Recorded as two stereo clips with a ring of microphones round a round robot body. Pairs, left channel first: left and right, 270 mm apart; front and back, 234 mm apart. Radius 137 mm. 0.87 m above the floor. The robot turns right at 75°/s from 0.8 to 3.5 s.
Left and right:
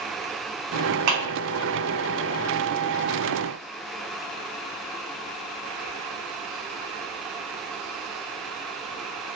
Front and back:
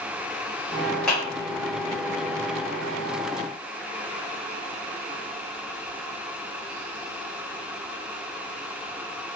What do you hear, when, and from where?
1.1 s a clap: 90° right, 1.1 m; by 1.2 s 75° right, 1.1 m